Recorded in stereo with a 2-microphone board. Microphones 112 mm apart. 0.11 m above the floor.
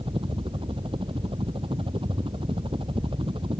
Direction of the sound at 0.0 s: 50° right (ahead or behind).